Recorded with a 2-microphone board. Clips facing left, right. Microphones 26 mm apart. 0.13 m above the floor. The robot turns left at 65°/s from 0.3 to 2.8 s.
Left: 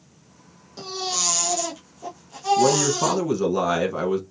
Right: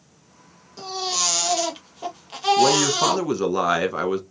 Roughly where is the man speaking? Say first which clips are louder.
Right 2 dB; right.